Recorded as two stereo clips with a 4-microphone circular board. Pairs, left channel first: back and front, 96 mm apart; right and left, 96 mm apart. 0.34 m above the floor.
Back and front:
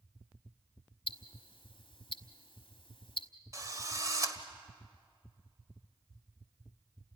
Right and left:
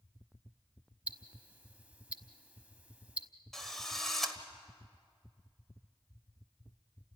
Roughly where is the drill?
Ahead.